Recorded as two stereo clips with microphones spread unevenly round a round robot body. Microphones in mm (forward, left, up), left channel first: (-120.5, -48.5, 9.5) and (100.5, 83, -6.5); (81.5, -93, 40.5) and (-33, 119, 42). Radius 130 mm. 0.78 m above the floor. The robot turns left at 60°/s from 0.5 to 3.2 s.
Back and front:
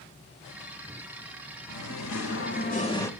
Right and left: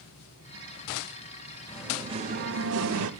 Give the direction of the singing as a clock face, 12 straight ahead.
5 o'clock.